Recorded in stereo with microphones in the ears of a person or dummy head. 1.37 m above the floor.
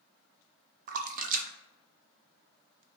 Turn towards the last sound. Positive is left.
turn(degrees=-35)  # may be behind; listen again after turning